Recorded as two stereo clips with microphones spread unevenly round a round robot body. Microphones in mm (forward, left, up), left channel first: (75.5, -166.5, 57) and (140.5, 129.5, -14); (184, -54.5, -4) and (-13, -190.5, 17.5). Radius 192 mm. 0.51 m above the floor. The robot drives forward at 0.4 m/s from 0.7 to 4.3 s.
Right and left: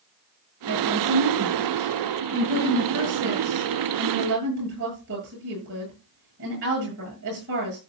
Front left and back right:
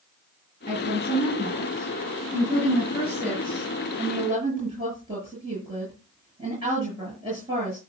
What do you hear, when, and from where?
0.7 s a woman speaking: 130° left, 7.5 m; by 7.8 s 135° left, 8.5 m